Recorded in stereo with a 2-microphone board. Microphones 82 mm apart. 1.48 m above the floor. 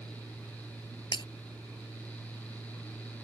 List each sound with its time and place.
1.1 s breaking glass: 70° left (ahead or behind)